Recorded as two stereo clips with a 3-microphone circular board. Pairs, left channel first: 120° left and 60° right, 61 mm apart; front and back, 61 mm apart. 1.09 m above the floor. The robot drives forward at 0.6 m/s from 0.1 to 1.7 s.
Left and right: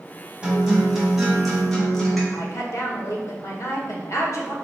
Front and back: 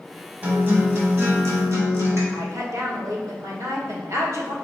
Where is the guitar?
130° right, 1.3 m; by 2.2 s 150° right, 1.8 m.